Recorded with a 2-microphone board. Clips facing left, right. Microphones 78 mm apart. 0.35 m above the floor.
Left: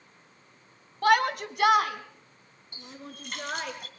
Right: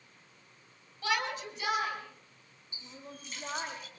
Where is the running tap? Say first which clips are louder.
Left 4 dB; 60° left (ahead or behind), 2.5 m.